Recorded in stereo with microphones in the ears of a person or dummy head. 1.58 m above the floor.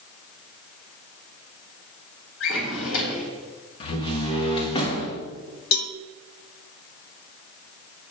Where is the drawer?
75° left (ahead or behind), 2.5 m.